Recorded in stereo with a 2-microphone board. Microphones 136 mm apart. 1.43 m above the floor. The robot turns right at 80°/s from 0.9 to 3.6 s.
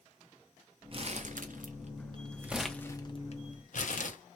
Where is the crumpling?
40° right (ahead or behind), 0.6 m; by 4.2 s 65° left (ahead or behind), 0.6 m.